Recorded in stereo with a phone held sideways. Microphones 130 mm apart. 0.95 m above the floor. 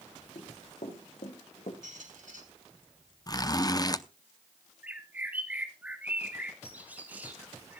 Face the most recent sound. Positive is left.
turn(degrees=-15)  # may be behind; listen again after turning